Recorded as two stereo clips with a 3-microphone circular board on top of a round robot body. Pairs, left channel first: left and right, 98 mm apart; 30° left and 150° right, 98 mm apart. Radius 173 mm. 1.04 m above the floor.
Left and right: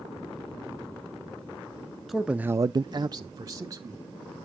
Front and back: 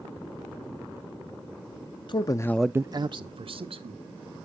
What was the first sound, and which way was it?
A man speaking, straight ahead.